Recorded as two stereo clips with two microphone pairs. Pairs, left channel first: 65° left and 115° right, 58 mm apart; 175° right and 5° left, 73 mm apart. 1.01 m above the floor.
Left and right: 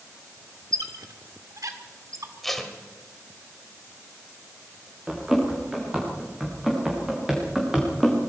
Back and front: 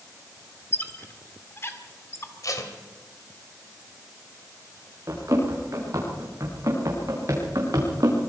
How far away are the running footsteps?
About 7.5 m.